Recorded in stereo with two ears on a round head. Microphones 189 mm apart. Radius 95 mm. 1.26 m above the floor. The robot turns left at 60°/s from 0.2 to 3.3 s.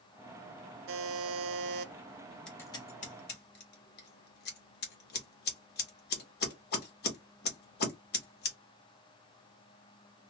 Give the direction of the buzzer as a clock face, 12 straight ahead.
2 o'clock.